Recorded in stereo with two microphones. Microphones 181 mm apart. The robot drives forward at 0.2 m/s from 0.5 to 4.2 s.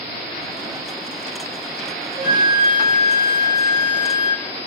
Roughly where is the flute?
Right.